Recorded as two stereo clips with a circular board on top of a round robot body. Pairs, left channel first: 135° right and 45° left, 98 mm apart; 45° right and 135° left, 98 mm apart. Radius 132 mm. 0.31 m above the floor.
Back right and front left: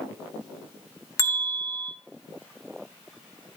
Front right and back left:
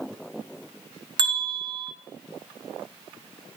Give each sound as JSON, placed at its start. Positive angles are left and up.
{"t": 1.2, "sound": "a bell", "azimuth_deg": 170, "distance_m": 2.5}